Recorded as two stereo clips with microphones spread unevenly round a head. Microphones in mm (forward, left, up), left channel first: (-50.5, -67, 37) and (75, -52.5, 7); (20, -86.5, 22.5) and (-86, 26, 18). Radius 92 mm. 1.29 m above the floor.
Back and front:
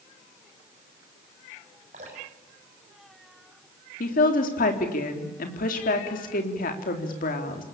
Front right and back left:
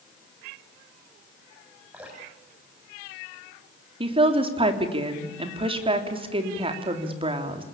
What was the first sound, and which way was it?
Dripping, 50° left.